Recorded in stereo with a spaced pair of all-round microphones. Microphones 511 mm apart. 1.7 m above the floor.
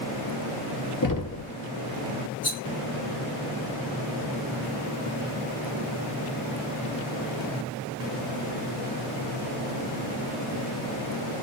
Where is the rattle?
45° left (ahead or behind), 1.8 m.